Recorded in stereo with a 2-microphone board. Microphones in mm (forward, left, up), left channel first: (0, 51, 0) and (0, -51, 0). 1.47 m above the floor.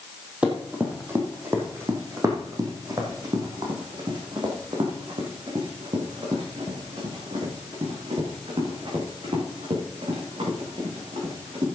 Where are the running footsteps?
10° right (ahead or behind), 2.5 m; by 11.7 s 70° right (ahead or behind), 7 m.